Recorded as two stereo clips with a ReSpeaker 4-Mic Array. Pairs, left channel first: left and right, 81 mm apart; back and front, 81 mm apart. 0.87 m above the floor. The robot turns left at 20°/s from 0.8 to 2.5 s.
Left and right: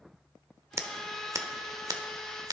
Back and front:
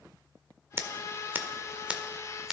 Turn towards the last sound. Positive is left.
turn(degrees=-85)